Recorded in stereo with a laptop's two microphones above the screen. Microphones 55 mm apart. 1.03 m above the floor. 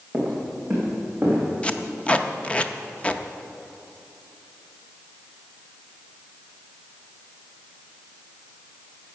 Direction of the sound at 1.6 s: 25° left (ahead or behind).